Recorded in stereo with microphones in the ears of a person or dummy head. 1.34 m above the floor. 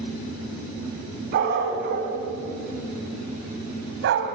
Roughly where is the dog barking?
Right.